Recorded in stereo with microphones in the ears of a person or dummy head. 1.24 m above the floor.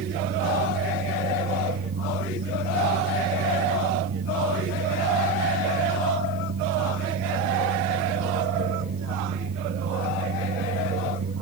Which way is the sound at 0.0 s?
70° right (ahead or behind).